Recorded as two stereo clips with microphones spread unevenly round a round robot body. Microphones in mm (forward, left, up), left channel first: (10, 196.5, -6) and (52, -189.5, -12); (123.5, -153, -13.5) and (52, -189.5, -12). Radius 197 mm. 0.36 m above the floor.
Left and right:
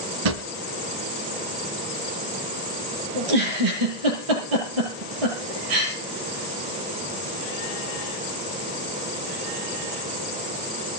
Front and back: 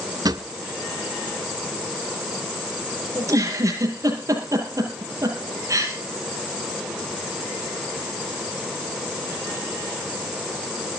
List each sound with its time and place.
0.2 s a drawer: 110° right, 1.4 m
3.1 s a giggle: 105° right, 8 m